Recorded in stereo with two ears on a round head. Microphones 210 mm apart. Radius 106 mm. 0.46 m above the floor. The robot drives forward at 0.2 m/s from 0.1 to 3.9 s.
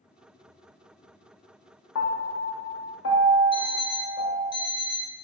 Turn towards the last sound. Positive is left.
turn(degrees=20)  # may be behind; listen again after turning